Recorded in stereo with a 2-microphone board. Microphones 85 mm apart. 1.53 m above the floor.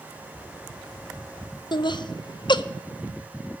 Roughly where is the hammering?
I don't hear hammering.